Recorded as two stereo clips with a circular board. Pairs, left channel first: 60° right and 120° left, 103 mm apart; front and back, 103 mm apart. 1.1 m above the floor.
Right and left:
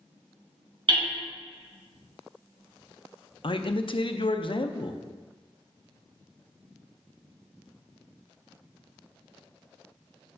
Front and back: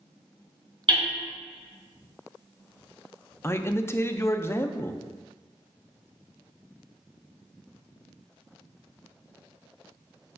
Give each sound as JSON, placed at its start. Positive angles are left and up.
{"t": 0.9, "sound": "hammering", "azimuth_deg": 145, "distance_m": 3.5}
{"t": 3.4, "sound": "a man speaking", "azimuth_deg": -60, "distance_m": 0.5}